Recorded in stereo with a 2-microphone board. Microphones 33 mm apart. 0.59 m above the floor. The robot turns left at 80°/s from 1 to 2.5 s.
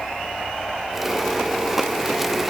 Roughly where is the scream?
No scream in this recording.